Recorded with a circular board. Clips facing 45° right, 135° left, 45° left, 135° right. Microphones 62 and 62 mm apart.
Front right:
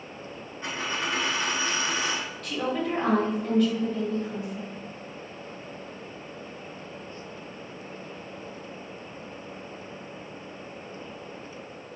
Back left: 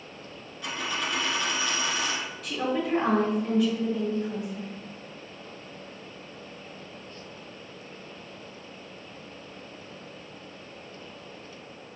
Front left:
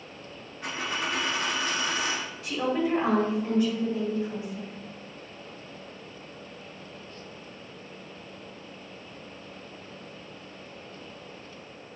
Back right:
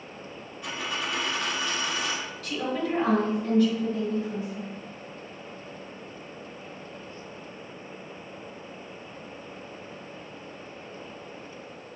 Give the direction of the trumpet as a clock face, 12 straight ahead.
I don't hear a trumpet.